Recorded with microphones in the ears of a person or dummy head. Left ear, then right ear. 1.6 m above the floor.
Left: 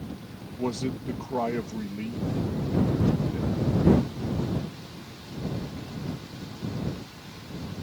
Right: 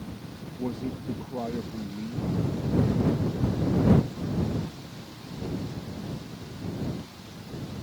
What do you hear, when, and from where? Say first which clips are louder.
0.6 s a man speaking: left 4 dB; 60° left (ahead or behind)